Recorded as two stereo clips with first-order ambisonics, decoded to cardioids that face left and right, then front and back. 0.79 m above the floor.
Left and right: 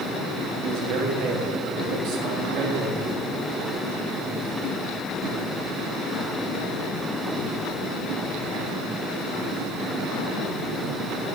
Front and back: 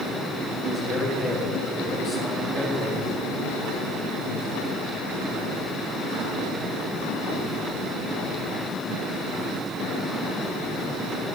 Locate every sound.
0.6 s a man speaking: 90° right, 1.7 m